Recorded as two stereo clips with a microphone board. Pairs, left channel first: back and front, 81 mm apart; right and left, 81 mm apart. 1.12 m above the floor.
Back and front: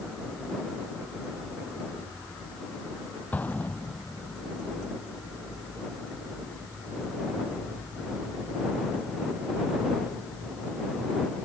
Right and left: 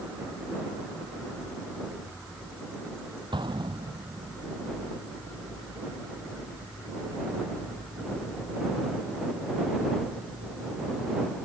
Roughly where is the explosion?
Left.